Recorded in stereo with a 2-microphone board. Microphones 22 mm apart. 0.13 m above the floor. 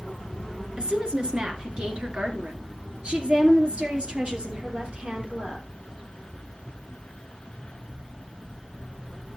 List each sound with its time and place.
0.8 s a woman speaking: 45° right (ahead or behind), 2.5 m